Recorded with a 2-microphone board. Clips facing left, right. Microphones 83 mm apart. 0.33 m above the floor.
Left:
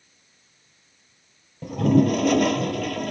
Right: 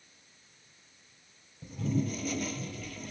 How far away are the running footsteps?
I don't hear running footsteps.